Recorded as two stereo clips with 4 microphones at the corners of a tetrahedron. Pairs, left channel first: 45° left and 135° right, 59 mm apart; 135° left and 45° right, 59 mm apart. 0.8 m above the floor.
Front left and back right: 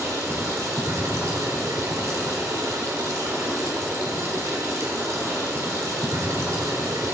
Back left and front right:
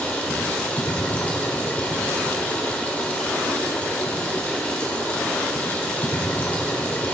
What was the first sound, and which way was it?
Running water, 160° right.